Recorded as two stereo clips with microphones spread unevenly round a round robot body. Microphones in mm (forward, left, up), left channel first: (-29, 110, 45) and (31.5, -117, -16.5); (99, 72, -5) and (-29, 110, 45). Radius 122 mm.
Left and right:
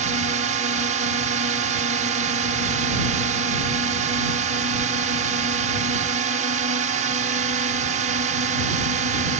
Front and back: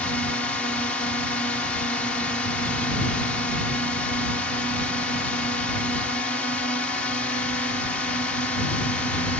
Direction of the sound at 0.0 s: 70° right.